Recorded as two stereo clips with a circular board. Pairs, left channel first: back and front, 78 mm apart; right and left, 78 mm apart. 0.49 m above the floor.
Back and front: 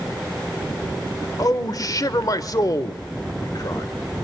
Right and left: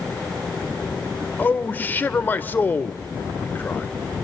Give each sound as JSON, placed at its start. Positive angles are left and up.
{"t": 1.4, "sound": "a man speaking", "azimuth_deg": -150, "distance_m": 1.2}